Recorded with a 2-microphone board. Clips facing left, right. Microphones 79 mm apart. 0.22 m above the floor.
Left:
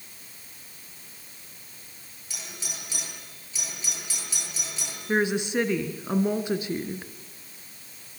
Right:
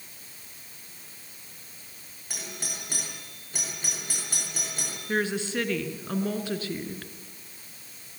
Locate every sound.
2.3 s a doorbell: 50° right (ahead or behind), 7 m
5.1 s a woman speaking: 20° left (ahead or behind), 2.5 m